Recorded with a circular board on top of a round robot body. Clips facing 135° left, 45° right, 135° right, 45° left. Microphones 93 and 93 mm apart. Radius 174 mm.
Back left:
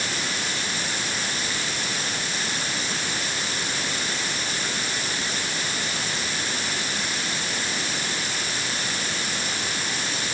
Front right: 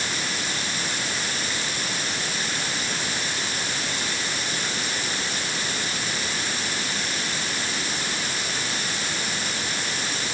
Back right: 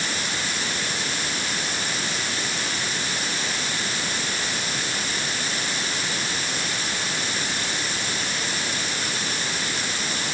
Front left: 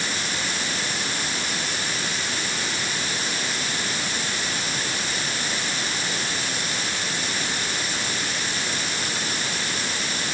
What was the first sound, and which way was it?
Only background noise.